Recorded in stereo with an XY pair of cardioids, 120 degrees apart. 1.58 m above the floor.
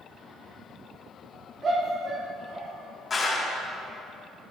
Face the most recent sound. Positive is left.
turn(degrees=30)